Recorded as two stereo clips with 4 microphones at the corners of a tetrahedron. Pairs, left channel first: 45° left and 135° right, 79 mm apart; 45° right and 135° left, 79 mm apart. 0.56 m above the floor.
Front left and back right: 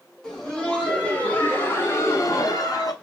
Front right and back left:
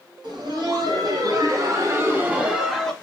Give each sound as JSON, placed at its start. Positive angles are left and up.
{"t": 0.2, "sound": "laughter", "azimuth_deg": 125, "distance_m": 2.5}